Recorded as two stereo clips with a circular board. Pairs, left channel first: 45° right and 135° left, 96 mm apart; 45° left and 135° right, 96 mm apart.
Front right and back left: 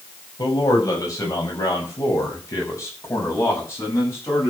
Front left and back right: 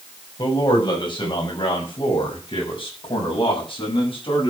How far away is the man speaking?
About 6 m.